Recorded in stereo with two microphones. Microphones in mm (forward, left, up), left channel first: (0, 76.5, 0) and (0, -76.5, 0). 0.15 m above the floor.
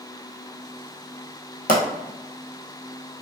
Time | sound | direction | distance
1.7 | a pop | 70° left (ahead or behind) | 0.9 m